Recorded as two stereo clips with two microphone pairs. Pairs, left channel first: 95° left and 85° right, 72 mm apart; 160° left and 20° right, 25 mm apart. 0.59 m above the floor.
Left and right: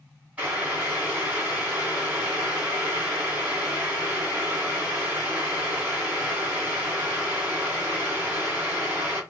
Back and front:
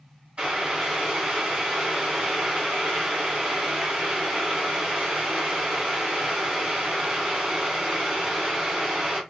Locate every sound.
0.4 s boiling: 30° right, 1.4 m